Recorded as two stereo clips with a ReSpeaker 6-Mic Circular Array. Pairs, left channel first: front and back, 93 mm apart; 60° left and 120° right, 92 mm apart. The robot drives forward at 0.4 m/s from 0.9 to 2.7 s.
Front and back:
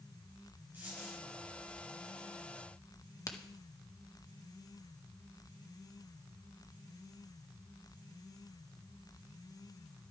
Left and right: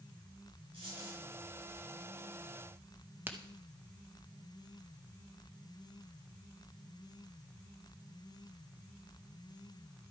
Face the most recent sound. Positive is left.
turn(degrees=-50)